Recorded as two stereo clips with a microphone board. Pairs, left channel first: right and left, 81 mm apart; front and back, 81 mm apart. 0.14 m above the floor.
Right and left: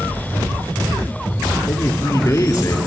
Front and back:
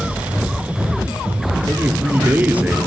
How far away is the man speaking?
About 1.8 m.